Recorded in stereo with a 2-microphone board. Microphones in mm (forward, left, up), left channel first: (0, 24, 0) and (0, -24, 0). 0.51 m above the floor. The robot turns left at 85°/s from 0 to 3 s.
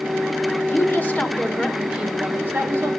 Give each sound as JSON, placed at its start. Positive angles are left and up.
{"t": 0.7, "sound": "a woman speaking", "azimuth_deg": 95, "distance_m": 1.9}